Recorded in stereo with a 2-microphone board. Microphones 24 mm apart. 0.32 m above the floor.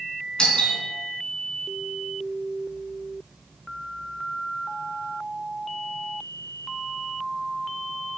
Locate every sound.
0.4 s a doorbell: 40° left (ahead or behind), 4 m